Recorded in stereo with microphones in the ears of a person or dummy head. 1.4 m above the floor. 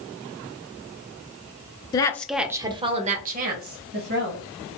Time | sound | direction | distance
1.9 | a woman speaking | 20° left (ahead or behind) | 0.5 m